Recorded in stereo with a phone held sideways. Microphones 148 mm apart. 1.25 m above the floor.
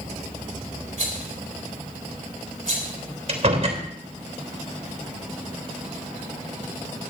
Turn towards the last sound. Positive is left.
turn(degrees=-55)  # may be behind; listen again after turning